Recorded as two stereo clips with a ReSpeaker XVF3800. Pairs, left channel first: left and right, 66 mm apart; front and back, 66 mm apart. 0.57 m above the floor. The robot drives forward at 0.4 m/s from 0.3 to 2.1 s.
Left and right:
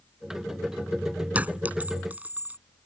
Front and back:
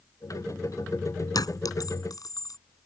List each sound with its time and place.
1.4 s a clink: 20° right; by 2.6 s 25° right